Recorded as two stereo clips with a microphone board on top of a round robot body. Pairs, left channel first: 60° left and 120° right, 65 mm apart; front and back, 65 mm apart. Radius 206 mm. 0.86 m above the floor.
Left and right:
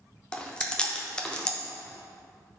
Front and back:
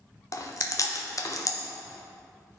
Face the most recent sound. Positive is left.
turn(degrees=-15)